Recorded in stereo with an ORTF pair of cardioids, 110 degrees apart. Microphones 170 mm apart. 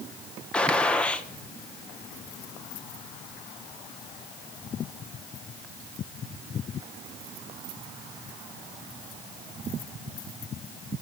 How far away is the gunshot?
About 1.6 m.